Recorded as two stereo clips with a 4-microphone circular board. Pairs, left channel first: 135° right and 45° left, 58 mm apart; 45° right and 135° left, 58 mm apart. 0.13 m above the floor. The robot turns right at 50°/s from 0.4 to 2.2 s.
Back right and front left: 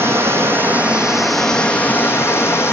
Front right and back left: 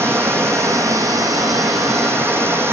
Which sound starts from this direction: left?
Running water, at 0.0 s.